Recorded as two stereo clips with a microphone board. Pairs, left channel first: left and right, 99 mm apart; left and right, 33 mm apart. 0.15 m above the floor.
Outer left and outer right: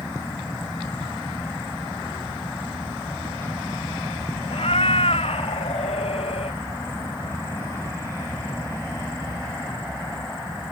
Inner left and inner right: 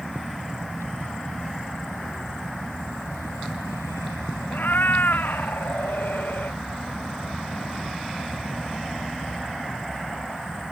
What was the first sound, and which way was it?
A cat meowing, 75° left (ahead or behind).